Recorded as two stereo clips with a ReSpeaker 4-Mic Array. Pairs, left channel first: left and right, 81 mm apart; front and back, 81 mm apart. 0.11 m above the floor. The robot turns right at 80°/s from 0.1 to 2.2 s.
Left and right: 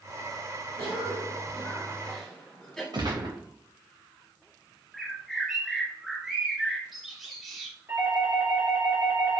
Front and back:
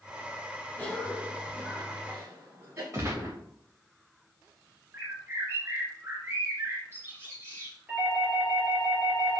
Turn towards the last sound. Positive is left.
turn(degrees=-110)